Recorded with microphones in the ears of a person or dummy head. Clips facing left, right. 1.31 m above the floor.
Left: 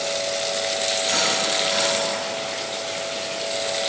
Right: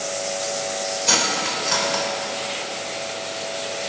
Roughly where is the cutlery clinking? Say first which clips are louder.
Left 1 dB; right.